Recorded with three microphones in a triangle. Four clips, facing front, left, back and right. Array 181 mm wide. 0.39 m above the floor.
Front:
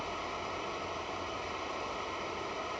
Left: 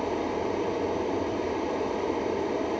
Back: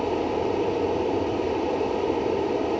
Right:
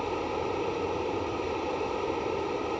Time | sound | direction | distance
0.0 | running water | 165° left | 1.4 m